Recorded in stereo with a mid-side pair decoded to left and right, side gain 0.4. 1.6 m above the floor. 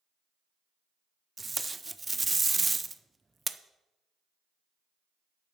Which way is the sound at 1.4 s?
25° right.